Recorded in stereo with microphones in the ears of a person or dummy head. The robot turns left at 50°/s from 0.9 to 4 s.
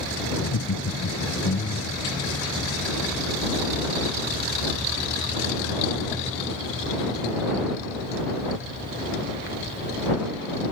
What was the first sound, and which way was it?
Laughter, 90° left.